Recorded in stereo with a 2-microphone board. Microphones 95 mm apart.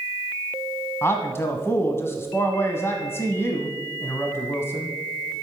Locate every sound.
1.0 s a man speaking: 25° left (ahead or behind), 1.2 m